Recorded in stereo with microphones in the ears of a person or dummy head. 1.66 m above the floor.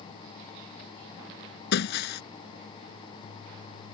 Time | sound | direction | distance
1.7 | breaking glass | 65° left (ahead or behind) | ?